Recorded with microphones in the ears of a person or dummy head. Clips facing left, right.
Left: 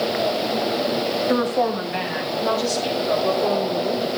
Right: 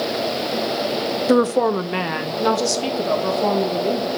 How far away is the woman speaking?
About 0.6 m.